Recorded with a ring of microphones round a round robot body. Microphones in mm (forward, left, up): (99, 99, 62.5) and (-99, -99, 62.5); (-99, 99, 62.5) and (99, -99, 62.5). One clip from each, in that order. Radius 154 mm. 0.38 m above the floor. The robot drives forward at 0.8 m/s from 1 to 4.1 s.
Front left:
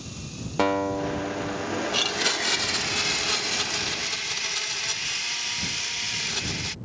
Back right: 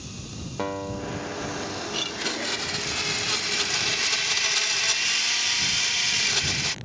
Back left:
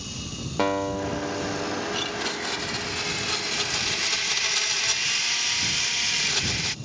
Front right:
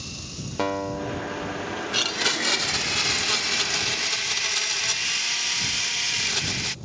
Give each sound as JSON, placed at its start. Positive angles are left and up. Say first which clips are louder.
{"t": 0.6, "sound": "a guitar", "louder": "front left 7 dB, back left 2 dB", "azimuth_deg": 55}
{"t": 1.9, "sound": "a blender", "louder": "front left 5 dB, front right 5 dB", "azimuth_deg": -15}